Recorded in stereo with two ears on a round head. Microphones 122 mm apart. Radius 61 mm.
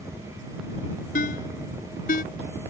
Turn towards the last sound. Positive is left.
turn(degrees=60)  # may be behind; listen again after turning